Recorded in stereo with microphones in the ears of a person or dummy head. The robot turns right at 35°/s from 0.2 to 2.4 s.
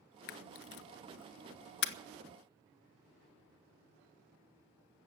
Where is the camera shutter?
55° left (ahead or behind), 1.0 m.